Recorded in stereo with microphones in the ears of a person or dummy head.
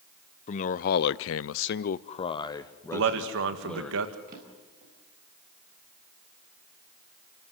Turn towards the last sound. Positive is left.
turn(degrees=-50)  # may be behind; listen again after turning